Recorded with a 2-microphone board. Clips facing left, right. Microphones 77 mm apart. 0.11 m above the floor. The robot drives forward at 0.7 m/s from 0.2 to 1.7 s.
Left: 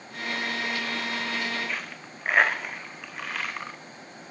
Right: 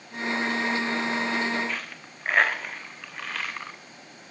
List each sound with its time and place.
1.7 s a dropped coin: 5° left (ahead or behind), 0.6 m